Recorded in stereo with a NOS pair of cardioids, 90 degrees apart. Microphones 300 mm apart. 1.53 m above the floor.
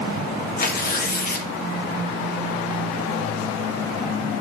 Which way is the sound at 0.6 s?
30° left.